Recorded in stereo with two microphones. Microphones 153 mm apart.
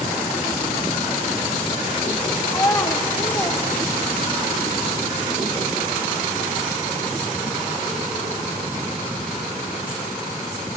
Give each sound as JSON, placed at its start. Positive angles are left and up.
{"t": 2.5, "sound": "a child speaking", "side_deg": 20, "distance_m": 1.4}